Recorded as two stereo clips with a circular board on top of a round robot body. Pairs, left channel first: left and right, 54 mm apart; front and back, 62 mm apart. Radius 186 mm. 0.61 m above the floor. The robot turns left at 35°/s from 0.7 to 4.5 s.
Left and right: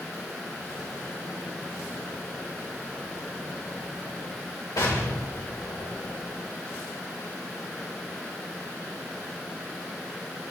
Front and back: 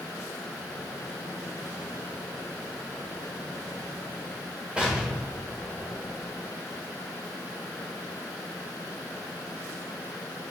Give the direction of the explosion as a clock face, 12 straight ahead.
8 o'clock.